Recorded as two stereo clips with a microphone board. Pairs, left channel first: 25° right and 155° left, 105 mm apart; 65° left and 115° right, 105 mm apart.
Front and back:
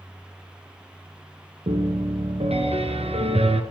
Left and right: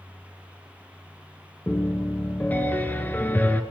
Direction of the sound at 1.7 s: 140° left.